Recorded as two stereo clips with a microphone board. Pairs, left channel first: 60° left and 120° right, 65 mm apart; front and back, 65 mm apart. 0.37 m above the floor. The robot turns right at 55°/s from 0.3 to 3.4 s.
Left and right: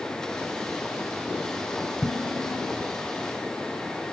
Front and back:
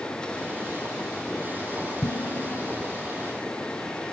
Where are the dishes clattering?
30° right, 3 m; by 2.7 s 10° left, 3 m.